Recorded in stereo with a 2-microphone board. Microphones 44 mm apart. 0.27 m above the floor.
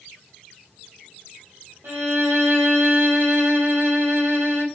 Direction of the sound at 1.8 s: 60° right (ahead or behind).